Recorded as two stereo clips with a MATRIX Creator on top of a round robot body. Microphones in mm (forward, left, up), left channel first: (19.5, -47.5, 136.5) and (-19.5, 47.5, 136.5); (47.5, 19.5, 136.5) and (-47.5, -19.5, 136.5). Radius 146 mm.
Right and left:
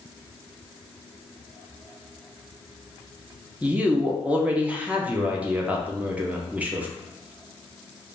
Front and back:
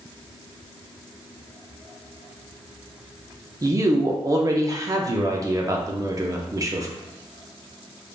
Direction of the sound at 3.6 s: Straight behind.